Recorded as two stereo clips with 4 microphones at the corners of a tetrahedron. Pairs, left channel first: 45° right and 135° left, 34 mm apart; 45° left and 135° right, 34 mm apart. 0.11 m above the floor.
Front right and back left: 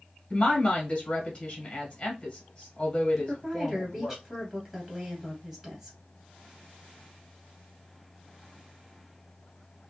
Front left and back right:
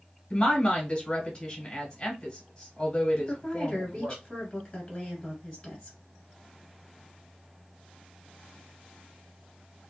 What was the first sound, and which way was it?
A woman speaking, 5° right.